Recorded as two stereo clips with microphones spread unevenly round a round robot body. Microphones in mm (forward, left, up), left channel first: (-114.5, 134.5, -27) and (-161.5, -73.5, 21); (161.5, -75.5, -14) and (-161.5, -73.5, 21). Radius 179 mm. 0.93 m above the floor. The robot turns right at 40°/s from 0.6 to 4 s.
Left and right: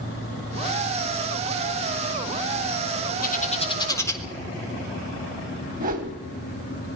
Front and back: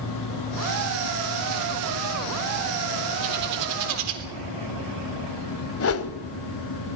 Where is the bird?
120° left, 3.5 m; by 4.2 s 150° left, 3.5 m.